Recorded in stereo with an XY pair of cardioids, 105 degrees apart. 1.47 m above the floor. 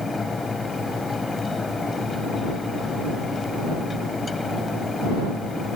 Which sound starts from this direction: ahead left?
A fan, at 0.0 s.